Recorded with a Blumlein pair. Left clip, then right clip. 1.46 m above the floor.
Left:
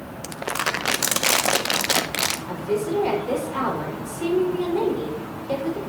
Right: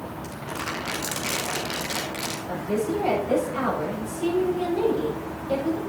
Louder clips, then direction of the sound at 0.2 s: Left 8 dB; 35° left.